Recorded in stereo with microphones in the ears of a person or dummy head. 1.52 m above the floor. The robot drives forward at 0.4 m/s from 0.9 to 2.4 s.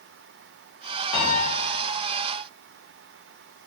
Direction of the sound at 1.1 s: 20° left (ahead or behind).